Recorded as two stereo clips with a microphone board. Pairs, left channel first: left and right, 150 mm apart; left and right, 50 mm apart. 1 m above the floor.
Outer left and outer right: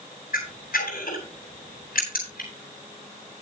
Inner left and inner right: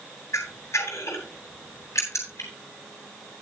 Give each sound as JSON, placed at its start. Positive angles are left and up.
{"t": 0.3, "sound": "a camera shutter", "side_deg": 75, "distance_m": 9.0}